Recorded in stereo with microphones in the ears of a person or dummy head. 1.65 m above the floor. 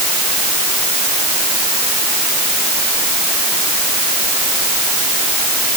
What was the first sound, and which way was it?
Only background noise.